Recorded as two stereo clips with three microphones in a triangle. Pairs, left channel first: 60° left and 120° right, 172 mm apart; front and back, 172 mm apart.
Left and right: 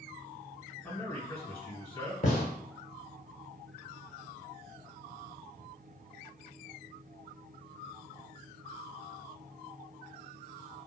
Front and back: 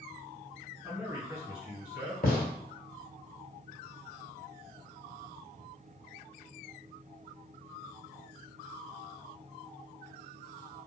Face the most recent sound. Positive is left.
turn(degrees=25)